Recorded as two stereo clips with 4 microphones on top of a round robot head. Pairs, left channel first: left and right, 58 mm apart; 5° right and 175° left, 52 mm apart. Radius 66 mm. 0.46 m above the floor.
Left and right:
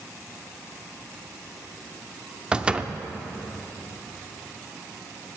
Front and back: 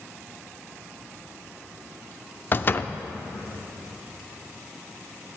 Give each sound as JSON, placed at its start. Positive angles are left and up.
{"t": 2.5, "sound": "a door slam", "azimuth_deg": -25, "distance_m": 0.7}